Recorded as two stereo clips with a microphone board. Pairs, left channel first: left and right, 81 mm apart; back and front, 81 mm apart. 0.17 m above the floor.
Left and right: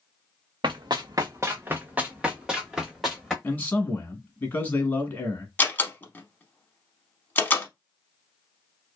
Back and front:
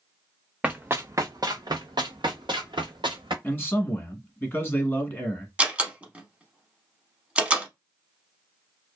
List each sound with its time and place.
0.6 s running footsteps: 75° right, 0.6 m; by 3.3 s straight ahead, 1.7 m
3.4 s a man speaking: 130° left, 1.1 m
5.6 s a door slam: 55° left, 0.7 m